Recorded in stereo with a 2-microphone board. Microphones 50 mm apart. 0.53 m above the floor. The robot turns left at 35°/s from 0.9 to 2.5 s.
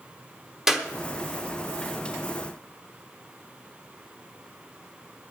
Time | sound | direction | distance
0.7 | a clap | 5° right (ahead or behind) | 0.9 m